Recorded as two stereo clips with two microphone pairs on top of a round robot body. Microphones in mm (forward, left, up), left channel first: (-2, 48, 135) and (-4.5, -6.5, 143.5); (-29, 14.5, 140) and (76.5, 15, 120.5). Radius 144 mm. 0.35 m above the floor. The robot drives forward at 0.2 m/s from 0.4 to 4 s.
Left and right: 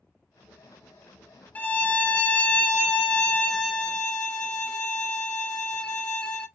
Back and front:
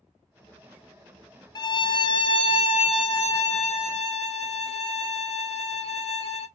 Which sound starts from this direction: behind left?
A violin, at 1.6 s.